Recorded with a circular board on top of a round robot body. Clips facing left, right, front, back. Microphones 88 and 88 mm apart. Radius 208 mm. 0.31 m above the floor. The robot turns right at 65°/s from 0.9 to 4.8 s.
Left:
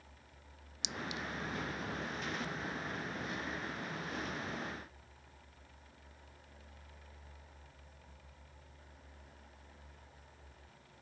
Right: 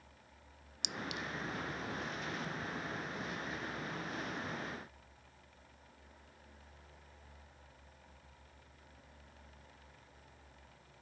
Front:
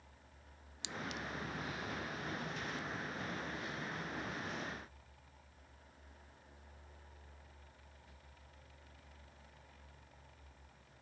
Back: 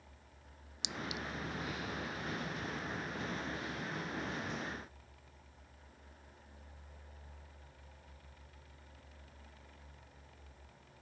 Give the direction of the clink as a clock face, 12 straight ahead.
4 o'clock.